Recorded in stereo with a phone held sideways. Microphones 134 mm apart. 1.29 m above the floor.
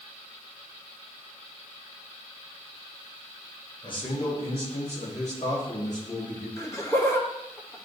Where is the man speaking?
35° left (ahead or behind), 2 m; by 6.5 s 65° left (ahead or behind), 3 m.